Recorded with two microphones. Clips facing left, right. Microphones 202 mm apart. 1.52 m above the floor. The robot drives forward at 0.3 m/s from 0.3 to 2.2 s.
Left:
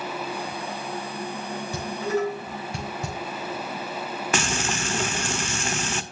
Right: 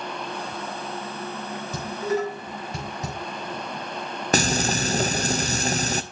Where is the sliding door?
No sliding door in this recording.